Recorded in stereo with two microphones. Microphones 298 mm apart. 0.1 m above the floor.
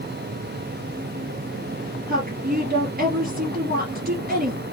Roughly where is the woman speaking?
Right.